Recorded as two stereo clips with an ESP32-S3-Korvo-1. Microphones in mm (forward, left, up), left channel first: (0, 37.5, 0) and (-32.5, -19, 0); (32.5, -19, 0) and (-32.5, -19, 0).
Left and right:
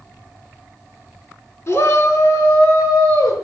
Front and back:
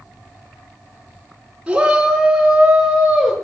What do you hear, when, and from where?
1.7 s a shout: 105° left, 5 m; by 3.3 s 90° left, 6 m